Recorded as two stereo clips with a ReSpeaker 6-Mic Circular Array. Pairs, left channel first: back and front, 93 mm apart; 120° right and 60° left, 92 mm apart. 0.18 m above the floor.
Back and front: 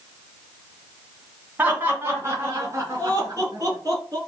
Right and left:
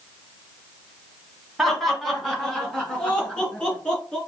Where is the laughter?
30° right, 1.4 m; by 4.2 s 40° right, 2.5 m.